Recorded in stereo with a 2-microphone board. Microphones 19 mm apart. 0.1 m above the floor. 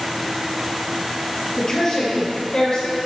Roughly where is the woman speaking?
Left.